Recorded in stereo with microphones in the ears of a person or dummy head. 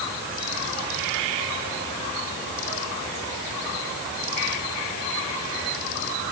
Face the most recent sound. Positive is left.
No sound to turn to.